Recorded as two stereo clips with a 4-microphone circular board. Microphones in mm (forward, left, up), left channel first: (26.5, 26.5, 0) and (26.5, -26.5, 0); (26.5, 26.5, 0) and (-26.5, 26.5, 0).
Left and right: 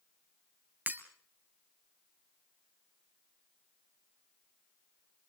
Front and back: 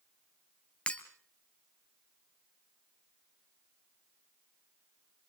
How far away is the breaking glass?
About 1.7 m.